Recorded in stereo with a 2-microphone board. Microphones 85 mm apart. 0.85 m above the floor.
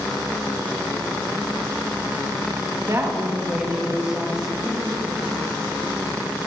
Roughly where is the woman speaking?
Right.